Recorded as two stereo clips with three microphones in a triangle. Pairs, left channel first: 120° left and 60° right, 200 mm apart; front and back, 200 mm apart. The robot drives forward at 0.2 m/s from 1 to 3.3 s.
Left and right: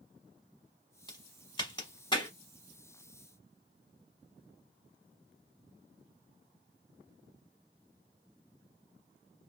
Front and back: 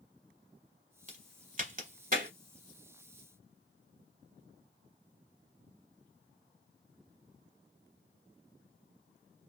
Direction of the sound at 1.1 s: 175° left.